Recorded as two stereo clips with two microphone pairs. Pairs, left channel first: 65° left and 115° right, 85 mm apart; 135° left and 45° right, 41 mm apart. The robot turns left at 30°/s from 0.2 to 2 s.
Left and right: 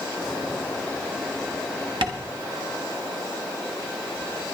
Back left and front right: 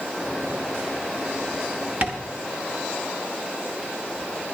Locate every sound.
2.0 s tapping: 100° right, 1.1 m